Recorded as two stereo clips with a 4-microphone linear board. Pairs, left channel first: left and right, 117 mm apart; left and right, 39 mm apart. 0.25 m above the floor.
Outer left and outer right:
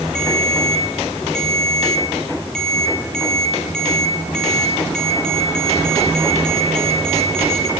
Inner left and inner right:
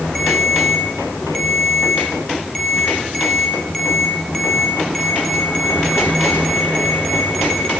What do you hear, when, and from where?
0.1 s a ringtone: 5° left (ahead or behind), 4 m